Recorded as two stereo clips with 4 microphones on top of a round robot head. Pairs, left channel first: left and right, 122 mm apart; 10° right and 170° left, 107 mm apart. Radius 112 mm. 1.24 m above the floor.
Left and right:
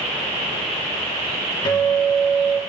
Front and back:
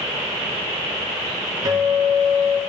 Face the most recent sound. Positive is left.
turn(degrees=130)